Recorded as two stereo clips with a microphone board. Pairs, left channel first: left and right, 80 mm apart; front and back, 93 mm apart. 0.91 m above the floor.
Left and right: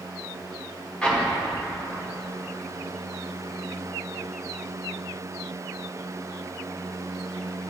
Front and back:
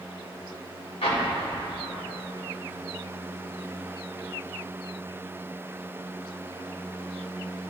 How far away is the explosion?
About 1.7 m.